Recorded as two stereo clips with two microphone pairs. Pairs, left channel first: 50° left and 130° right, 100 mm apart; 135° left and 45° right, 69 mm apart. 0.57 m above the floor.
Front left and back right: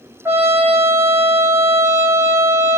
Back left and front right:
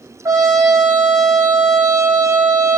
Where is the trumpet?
70° right, 3 m.